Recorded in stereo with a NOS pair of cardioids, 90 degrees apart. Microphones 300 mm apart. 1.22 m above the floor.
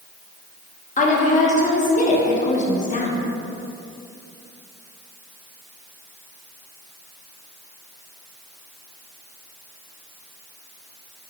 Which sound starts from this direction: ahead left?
A woman speaking, at 1.0 s.